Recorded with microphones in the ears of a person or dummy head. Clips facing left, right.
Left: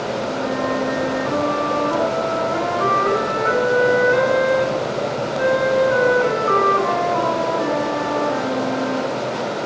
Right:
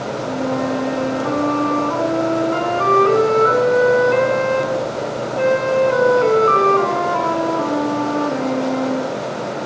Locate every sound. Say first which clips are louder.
0.3 s a flute: right 4 dB; 55° right (ahead or behind), 9 m